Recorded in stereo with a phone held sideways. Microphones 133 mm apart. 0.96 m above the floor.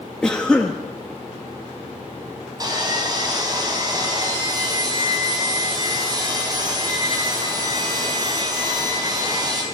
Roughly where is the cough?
Centre.